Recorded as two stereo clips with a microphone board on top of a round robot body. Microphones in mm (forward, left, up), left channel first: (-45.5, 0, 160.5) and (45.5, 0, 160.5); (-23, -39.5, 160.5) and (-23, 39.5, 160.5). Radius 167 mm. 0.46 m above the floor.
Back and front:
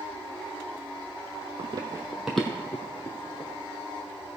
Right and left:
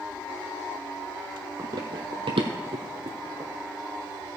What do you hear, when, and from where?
1.6 s running footsteps: 40° left, 1.0 m; by 3.5 s 130° left, 1.8 m